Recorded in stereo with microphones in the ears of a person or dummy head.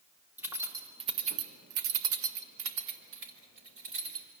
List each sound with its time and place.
0.4 s keys jangling: 10° right (ahead or behind), 2 m; by 4.3 s 60° right (ahead or behind), 3.5 m